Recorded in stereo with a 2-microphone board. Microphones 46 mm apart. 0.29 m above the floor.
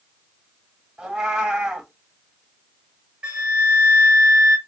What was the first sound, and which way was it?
A cat meowing, 15° right (ahead or behind).